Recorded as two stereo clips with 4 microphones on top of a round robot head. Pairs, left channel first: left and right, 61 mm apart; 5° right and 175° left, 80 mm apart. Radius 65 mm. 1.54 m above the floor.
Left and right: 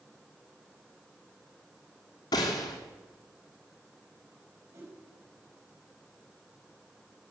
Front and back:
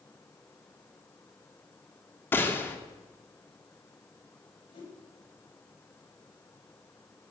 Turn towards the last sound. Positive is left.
turn(degrees=-35)